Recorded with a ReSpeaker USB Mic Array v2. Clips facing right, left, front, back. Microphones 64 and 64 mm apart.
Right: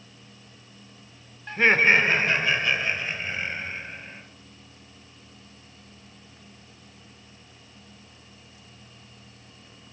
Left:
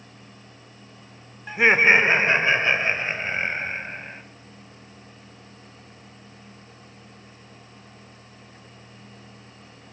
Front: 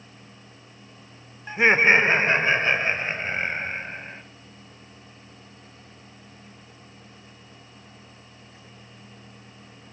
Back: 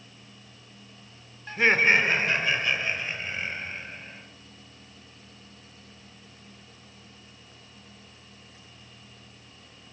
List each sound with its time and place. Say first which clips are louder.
1.5 s laughter: left 2 dB, front 3 dB; 30° left, 1.2 m; by 4.2 s 45° left, 3 m